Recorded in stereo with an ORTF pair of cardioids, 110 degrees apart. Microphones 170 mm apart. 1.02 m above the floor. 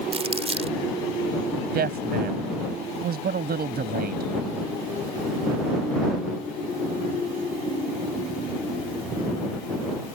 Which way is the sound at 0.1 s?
35° right.